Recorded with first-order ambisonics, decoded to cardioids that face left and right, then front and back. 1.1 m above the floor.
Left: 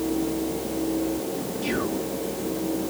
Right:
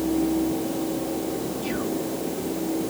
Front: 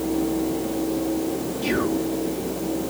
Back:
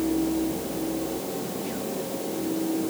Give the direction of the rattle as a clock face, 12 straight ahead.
No rattle in this recording.